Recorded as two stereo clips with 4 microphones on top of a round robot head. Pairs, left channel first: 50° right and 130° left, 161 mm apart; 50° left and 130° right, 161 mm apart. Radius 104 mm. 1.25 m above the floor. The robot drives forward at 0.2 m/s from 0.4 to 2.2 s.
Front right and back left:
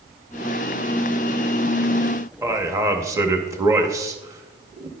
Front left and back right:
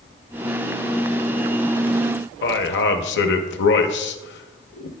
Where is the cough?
I don't hear a cough.